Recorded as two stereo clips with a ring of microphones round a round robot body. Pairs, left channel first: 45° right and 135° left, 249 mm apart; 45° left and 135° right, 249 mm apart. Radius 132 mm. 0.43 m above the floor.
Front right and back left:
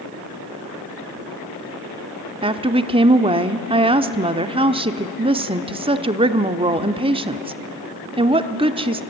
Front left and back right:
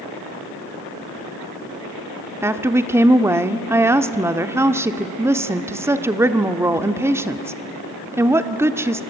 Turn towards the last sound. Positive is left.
turn(degrees=160)